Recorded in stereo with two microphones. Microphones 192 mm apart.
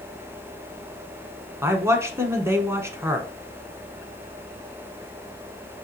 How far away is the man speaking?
About 1.1 m.